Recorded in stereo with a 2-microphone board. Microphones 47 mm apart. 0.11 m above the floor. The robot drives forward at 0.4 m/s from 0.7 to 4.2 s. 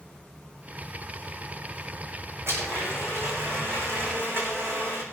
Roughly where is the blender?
Right.